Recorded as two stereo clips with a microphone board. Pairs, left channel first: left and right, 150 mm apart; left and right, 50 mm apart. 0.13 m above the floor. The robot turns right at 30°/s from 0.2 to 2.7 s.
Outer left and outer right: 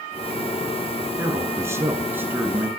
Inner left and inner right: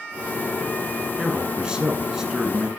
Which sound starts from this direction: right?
A man speaking, at 1.2 s.